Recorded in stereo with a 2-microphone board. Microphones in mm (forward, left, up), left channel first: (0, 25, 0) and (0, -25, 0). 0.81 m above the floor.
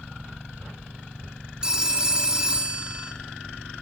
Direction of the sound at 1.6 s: 20° right (ahead or behind).